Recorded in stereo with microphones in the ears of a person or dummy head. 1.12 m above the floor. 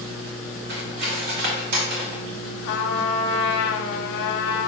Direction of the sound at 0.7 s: 55° right (ahead or behind).